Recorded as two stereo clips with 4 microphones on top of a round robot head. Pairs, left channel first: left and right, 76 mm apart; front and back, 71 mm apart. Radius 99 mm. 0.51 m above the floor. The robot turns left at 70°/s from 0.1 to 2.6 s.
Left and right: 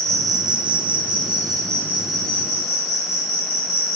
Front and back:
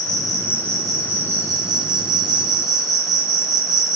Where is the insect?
35° right, 1.4 m; by 4.0 s 150° left, 1.4 m.